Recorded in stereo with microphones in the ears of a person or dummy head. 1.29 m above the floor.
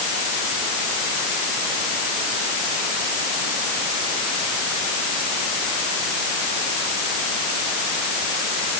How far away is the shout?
I don't hear a shout.